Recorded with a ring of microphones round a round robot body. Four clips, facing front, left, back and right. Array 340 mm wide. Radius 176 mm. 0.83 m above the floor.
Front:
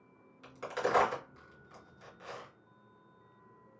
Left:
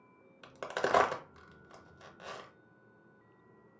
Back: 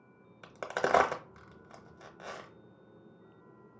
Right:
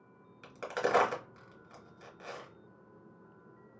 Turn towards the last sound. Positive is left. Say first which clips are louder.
# right 1 dB, back 2 dB
turn(degrees=160)